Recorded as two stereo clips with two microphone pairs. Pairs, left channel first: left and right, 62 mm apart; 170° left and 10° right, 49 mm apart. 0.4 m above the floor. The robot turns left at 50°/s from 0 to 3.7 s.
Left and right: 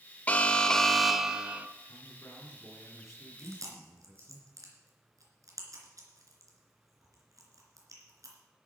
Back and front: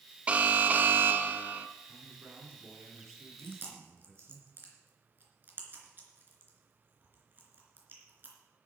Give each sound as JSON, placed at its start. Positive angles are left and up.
{"t": 0.3, "sound": "an alarm", "azimuth_deg": 35, "distance_m": 0.7}
{"t": 1.9, "sound": "a man speaking", "azimuth_deg": 60, "distance_m": 5.5}
{"t": 3.4, "sound": "chewing", "azimuth_deg": -45, "distance_m": 3.0}